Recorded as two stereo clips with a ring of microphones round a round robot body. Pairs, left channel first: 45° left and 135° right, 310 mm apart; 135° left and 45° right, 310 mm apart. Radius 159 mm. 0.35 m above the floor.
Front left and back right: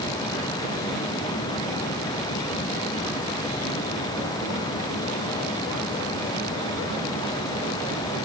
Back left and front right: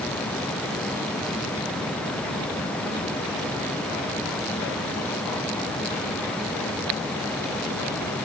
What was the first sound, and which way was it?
Only background noise.